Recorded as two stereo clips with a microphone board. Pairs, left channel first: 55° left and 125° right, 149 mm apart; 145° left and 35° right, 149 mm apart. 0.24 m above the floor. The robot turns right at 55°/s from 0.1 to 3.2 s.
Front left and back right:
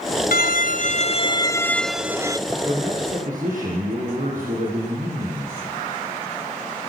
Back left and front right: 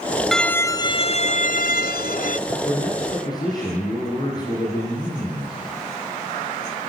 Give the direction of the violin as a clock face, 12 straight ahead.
10 o'clock.